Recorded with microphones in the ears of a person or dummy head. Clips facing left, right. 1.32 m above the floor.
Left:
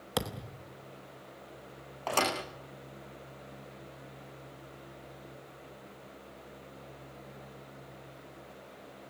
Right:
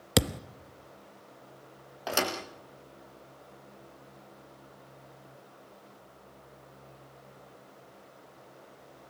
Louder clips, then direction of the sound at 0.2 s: Right 7 dB; 35° right (ahead or behind).